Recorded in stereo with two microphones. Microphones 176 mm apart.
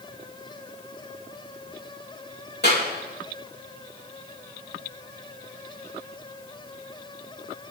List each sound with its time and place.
2.6 s a clap: 70° left (ahead or behind), 3 m